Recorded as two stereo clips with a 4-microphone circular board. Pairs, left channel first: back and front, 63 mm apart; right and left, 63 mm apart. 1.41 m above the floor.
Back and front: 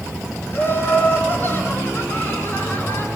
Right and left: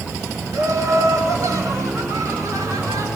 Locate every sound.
0.5 s laughter: 120° left, 3.5 m